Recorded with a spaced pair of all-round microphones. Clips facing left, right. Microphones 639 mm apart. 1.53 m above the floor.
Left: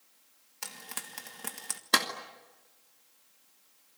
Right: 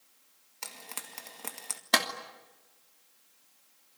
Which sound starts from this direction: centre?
A clap, at 1.9 s.